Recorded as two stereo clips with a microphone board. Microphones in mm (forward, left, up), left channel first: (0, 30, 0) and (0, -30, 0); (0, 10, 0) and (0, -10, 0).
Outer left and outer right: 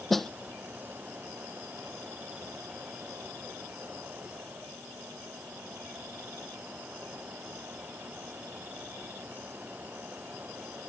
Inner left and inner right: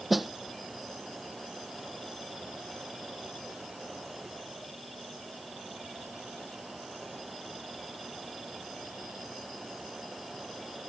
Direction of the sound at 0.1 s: Centre (ahead or behind).